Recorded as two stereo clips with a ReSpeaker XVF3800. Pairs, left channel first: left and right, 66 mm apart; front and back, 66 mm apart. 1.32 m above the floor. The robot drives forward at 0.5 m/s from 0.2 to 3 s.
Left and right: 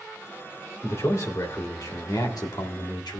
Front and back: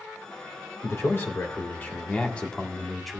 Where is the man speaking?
45° left, 1.7 m; by 3.2 s 85° left, 1.2 m.